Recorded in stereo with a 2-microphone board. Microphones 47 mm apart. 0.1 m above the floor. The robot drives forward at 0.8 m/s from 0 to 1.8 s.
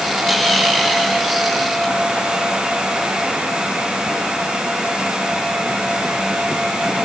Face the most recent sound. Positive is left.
No sound to turn to.